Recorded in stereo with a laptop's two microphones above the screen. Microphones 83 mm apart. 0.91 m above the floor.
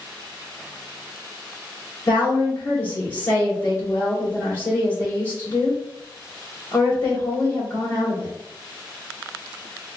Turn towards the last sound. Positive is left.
turn(degrees=25)  # may be behind; listen again after turning